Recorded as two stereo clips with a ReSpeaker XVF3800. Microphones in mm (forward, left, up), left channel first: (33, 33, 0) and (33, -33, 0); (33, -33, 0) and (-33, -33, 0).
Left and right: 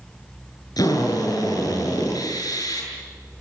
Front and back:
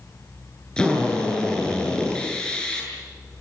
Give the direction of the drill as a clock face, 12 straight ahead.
9 o'clock.